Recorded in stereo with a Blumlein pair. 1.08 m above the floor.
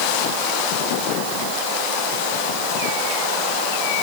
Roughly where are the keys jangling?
No keys jangling in this recording.